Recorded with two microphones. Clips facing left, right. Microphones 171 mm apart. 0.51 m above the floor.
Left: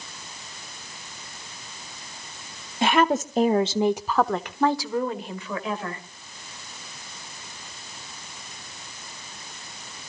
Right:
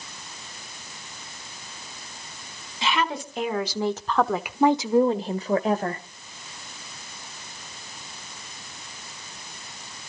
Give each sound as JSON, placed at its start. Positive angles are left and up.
{"t": 2.8, "sound": "a woman speaking", "side_deg": 55, "distance_m": 1.4}